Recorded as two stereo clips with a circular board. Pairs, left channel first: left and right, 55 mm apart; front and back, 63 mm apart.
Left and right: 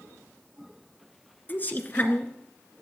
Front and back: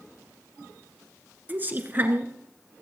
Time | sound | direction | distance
1.5 | a woman speaking | 130° left | 1.8 m